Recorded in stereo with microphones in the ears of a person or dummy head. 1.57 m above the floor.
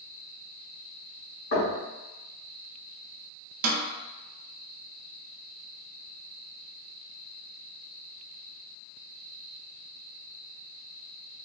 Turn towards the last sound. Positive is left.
turn(degrees=-50)  # may be behind; listen again after turning